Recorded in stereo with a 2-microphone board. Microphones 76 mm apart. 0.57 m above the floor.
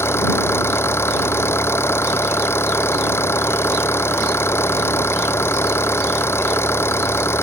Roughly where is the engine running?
Left.